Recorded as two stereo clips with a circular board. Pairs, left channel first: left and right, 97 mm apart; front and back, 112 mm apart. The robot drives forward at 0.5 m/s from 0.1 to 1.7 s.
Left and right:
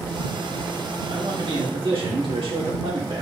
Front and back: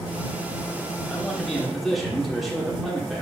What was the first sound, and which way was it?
A man speaking, 80° right.